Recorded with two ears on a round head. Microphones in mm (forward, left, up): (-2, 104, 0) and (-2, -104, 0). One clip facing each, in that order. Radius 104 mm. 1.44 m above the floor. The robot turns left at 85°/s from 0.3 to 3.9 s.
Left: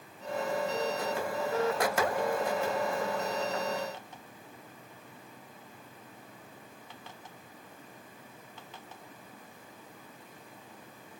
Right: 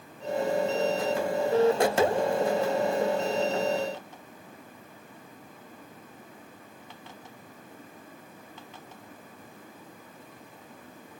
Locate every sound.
Only background noise.